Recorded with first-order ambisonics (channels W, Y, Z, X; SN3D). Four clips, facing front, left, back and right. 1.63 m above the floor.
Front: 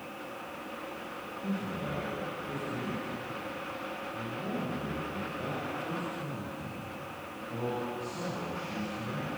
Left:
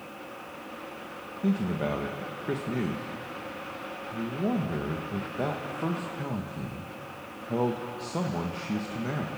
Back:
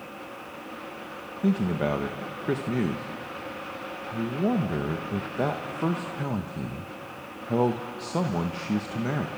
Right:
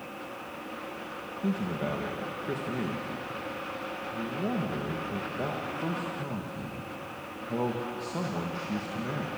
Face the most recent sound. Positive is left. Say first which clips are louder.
# left 3 dB, back 11 dB
turn(degrees=170)